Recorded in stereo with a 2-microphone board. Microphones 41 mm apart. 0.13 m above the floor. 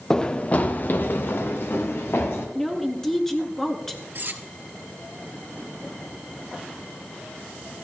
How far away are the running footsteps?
About 0.8 m.